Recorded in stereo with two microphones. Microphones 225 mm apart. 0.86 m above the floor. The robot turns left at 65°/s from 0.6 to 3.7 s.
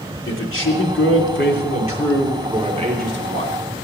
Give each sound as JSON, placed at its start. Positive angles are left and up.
{"t": 0.3, "sound": "a man speaking", "azimuth_deg": 115, "distance_m": 2.5}